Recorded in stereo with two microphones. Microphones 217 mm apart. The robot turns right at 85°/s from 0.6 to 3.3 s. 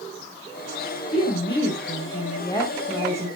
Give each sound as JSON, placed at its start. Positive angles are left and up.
{"t": 1.1, "sound": "a woman speaking", "azimuth_deg": 35, "distance_m": 2.5}